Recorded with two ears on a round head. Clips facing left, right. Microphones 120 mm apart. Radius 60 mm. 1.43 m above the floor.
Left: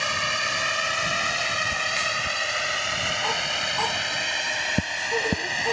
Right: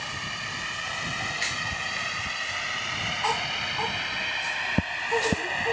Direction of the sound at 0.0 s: 80° left.